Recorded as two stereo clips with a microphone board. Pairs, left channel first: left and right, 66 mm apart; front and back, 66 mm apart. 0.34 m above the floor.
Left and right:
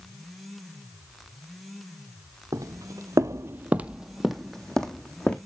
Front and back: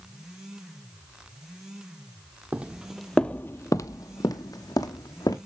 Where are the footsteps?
110° right, 0.7 m; by 5.4 s 15° left, 1.3 m.